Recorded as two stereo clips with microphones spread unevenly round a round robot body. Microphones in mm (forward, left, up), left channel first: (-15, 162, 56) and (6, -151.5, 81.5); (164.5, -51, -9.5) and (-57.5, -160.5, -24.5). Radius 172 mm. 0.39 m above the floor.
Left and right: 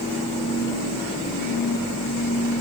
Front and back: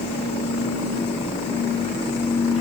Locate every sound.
Only background noise.